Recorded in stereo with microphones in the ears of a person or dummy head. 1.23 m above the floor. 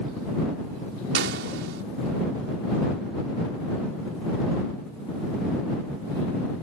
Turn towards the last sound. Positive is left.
turn(degrees=-70)  # may be behind; listen again after turning